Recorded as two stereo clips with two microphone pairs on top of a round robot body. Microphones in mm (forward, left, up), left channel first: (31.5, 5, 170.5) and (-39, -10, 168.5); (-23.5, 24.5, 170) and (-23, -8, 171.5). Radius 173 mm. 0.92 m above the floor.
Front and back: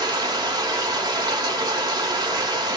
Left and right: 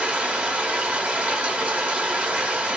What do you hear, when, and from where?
0.0 s running water: 140° right, 1.0 m